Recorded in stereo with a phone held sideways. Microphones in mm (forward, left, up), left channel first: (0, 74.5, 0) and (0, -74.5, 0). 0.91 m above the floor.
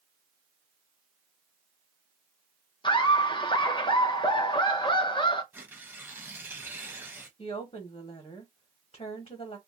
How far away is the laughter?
About 0.8 m.